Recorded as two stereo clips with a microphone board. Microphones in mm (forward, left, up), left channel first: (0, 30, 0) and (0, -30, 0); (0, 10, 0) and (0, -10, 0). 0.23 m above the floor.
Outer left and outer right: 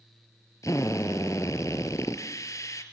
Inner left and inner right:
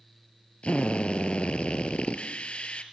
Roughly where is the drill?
Left.